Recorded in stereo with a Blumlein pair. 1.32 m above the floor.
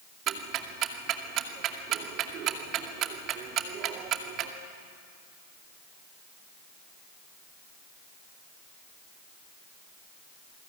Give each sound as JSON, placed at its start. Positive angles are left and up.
{"t": 0.3, "sound": "ticking", "azimuth_deg": -35, "distance_m": 2.5}